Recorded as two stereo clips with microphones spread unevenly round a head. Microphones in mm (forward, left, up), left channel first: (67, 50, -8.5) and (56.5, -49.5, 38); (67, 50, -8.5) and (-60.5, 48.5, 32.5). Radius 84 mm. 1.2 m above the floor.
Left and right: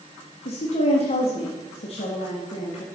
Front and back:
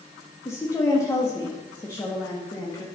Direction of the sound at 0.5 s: 70° left.